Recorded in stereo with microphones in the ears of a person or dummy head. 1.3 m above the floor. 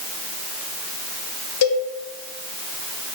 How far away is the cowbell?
About 1.7 m.